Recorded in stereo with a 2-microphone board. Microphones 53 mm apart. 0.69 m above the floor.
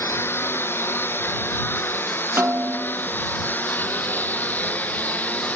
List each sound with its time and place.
0.0 s a lawn mower: 50° left (ahead or behind); by 5.6 s 30° left (ahead or behind)
2.4 s a snare drum: 40° right (ahead or behind)